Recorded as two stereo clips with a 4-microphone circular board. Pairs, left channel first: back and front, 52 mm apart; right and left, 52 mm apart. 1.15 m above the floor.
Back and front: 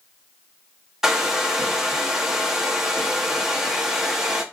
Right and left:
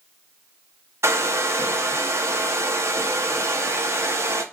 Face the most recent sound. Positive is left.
turn(degrees=80)